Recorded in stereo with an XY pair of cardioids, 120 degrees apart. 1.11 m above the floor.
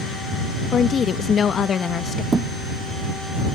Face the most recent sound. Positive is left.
turn(degrees=-30)